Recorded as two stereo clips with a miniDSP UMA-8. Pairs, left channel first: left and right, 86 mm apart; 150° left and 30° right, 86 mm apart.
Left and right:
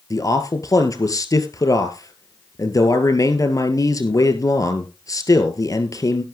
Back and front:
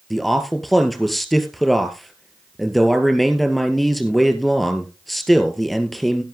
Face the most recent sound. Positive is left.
turn(degrees=60)